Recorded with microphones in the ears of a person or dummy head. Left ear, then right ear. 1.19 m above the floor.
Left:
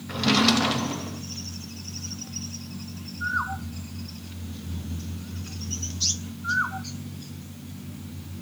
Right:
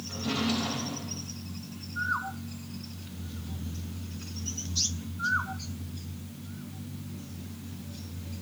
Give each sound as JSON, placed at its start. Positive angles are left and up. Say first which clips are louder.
{"t": 0.1, "sound": "a drawer", "louder": "left 10 dB", "side_deg": 70, "distance_m": 0.6}